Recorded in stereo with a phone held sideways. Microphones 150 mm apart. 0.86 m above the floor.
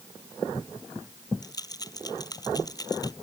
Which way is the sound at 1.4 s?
25° left (ahead or behind).